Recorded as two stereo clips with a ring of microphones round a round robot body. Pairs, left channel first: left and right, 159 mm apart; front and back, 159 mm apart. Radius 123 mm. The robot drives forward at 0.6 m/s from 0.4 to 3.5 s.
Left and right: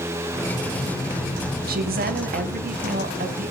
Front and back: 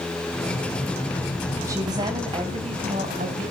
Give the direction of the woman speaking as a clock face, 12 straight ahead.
4 o'clock.